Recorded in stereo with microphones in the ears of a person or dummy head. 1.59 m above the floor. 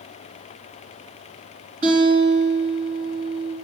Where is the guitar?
60° right (ahead or behind), 3.5 m.